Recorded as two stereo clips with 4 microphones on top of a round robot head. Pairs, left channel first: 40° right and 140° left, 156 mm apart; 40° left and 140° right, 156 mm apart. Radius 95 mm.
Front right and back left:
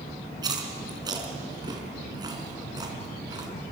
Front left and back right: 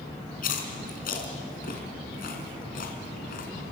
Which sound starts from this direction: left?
Chewing, at 0.4 s.